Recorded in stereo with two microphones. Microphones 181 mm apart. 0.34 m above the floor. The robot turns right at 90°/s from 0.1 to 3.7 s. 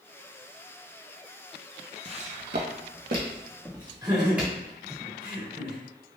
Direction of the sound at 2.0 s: 30° right (ahead or behind).